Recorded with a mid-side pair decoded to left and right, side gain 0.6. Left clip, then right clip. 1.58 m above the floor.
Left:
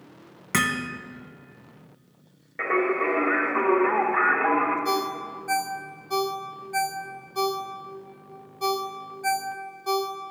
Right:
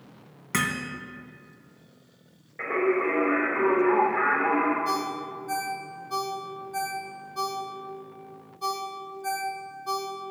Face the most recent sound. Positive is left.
turn(degrees=60)